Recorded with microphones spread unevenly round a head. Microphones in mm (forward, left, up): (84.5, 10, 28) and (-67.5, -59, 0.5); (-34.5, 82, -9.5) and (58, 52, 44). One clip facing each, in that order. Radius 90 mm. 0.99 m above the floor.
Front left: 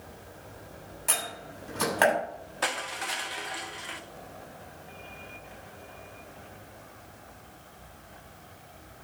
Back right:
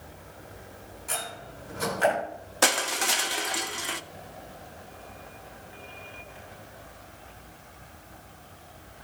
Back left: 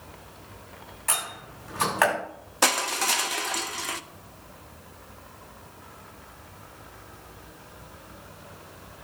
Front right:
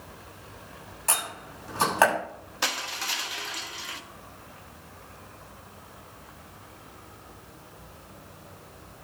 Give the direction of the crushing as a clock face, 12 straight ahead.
6 o'clock.